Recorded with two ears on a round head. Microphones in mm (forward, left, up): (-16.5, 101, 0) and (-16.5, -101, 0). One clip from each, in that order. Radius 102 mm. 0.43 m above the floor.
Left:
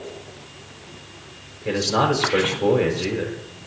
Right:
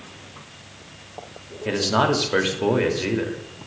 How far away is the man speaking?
About 1.1 m.